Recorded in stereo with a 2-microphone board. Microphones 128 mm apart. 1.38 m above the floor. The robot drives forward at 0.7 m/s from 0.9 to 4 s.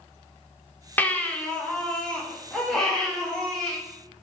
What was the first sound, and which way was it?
A baby crying, 15° left (ahead or behind).